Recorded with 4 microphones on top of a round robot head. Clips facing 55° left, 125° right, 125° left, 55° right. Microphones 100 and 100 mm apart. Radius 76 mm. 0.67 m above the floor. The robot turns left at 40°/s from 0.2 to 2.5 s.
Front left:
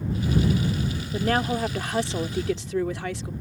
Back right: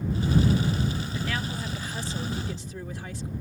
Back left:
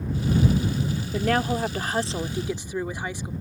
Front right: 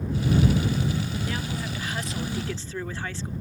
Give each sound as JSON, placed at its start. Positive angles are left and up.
{"t": 1.1, "sound": "a woman speaking", "azimuth_deg": 105}